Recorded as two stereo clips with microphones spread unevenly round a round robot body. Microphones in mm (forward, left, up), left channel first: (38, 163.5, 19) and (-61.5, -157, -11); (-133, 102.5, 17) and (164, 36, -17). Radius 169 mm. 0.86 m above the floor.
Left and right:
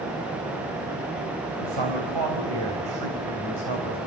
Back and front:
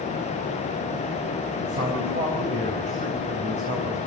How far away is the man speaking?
About 4 m.